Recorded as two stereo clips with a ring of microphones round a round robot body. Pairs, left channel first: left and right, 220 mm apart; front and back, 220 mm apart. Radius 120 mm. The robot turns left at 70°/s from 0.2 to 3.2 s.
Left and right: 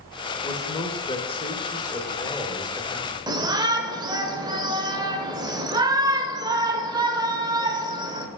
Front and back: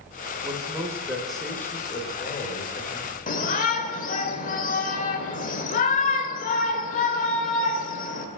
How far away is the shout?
About 1.2 m.